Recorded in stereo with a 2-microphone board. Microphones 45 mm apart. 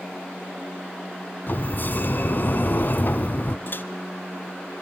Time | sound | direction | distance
1.5 | a sliding door | 45° left (ahead or behind) | 1.2 m
3.7 | a microwave | 50° left (ahead or behind) | 1.3 m